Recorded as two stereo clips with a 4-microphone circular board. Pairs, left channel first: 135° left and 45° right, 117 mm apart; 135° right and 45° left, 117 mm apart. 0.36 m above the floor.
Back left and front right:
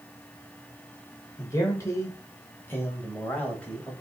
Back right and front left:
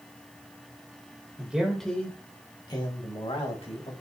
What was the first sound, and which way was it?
A man speaking, 105° left.